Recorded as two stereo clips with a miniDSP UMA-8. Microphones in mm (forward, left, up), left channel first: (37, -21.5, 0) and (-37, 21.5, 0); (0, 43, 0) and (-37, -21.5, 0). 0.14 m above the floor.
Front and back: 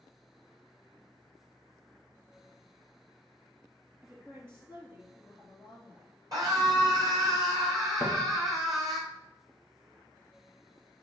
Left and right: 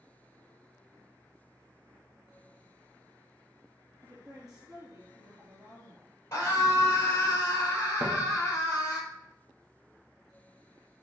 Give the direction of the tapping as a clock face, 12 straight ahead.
5 o'clock.